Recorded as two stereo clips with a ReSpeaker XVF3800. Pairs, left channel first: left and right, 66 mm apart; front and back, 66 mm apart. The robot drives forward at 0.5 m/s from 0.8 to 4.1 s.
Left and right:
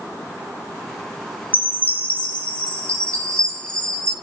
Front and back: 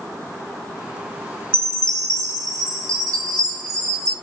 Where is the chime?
140° left, 0.9 m; by 4.1 s 165° left, 2.0 m.